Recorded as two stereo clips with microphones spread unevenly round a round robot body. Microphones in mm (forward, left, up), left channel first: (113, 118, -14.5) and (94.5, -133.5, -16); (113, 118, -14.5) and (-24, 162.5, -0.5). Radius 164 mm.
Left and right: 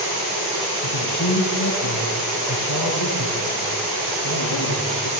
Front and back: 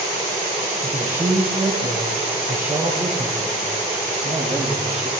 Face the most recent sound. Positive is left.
turn(degrees=75)